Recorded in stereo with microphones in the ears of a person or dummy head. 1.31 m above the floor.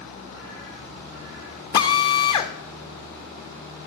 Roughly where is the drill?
Left.